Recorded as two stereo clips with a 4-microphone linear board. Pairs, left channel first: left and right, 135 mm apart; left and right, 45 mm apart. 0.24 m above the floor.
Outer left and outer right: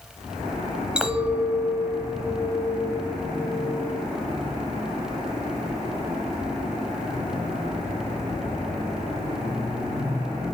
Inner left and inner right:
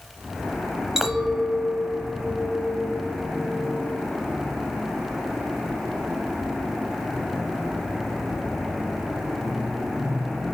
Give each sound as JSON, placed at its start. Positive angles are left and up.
{"t": 1.0, "sound": "a clink", "side_deg": -10, "distance_m": 0.8}